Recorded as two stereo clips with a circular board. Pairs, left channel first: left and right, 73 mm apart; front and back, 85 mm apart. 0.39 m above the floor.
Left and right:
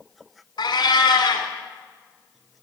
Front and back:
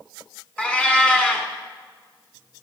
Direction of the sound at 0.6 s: 75° left.